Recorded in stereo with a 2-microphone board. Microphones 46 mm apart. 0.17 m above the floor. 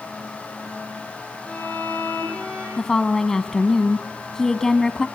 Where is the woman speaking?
10° left (ahead or behind), 1.1 m.